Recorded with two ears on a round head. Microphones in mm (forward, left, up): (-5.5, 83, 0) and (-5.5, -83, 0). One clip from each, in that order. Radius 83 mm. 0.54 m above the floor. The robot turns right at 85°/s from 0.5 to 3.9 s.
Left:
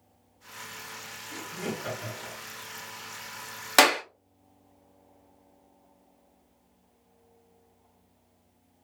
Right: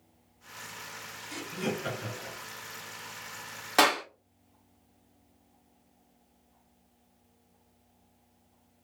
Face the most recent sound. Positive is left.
turn(degrees=40)  # may be behind; listen again after turning